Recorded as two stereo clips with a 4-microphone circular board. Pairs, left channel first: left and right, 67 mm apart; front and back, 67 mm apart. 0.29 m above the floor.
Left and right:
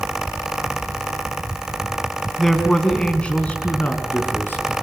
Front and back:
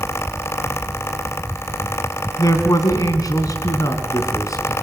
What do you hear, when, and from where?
2.4 s a man speaking: straight ahead, 2.5 m; by 4.7 s 30° left, 4 m